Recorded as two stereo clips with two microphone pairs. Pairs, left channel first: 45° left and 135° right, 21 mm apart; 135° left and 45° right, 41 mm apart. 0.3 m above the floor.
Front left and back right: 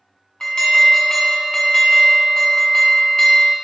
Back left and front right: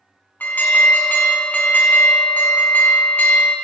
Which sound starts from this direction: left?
An alarm, at 0.4 s.